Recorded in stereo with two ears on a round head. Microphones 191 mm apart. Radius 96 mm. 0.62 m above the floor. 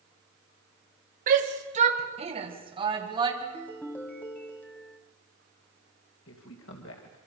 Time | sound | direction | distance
1.3 | a shout | 45° right (ahead or behind) | 3 m
3.4 | a ringtone | 10° left (ahead or behind) | 2 m
6.3 | a woman speaking | 65° left (ahead or behind) | 3 m